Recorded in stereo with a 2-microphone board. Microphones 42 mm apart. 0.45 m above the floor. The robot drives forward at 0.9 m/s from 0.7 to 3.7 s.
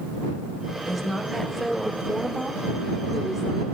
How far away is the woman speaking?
About 2.0 m.